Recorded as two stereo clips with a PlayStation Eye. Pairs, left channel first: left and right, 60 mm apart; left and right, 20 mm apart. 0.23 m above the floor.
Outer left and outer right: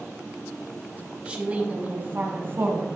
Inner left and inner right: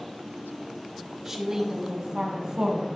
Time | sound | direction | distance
1.2 | a woman speaking | 20° right (ahead or behind) | 1.1 m